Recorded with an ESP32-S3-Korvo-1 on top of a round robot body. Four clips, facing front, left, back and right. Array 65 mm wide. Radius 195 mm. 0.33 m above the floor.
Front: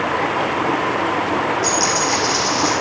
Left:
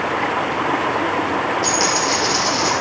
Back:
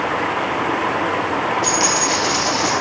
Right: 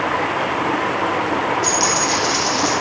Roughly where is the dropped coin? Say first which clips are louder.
Even, even; behind.